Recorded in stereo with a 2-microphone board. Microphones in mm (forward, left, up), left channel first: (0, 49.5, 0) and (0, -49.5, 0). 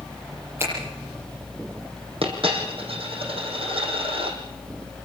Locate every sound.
0.6 s a finger snap: 25° right (ahead or behind), 9 m
2.2 s a dropped coin: 70° right (ahead or behind), 4.5 m